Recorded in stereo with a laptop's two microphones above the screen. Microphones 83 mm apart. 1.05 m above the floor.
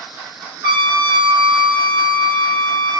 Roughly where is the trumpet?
Right.